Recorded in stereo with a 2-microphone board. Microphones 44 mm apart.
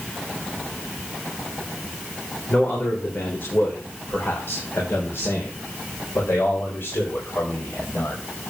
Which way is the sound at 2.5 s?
45° left (ahead or behind).